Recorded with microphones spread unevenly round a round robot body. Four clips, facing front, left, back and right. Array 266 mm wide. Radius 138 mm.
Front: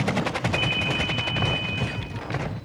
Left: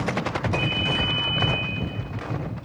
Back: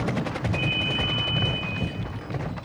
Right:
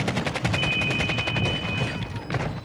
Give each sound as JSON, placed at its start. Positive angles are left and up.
{"t": 0.5, "sound": "a ringtone", "azimuth_deg": -25, "distance_m": 1.5}